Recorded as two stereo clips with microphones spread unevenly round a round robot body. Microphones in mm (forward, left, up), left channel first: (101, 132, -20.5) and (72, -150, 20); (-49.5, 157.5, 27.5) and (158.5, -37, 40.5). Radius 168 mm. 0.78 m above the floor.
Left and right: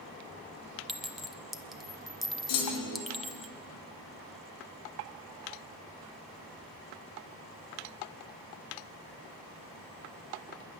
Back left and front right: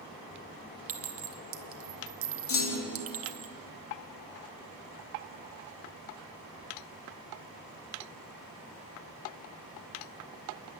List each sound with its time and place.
0.9 s a clink: 5° right, 1.5 m
2.5 s a clunk: 100° left, 3 m